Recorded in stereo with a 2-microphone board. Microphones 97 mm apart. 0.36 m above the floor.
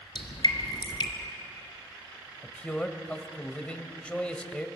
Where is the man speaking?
10° left (ahead or behind), 1.7 m.